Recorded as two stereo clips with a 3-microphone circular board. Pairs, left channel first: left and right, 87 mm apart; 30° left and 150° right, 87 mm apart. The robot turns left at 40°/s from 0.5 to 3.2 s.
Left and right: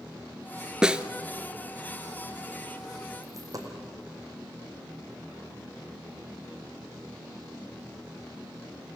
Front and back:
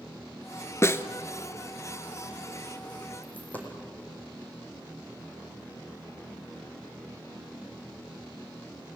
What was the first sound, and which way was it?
A snare drum, 10° right.